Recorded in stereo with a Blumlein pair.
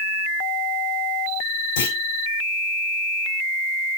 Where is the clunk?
55° left, 2.5 m.